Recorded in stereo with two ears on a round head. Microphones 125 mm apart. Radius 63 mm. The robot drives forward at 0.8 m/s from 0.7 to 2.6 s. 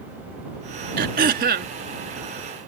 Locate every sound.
1.0 s throat clearing: 65° right (ahead or behind); by 1.7 s 70° right (ahead or behind)